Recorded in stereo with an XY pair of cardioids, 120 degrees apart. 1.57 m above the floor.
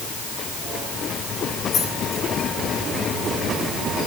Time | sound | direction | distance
1.7 | keys jangling | 45° left | 9.5 m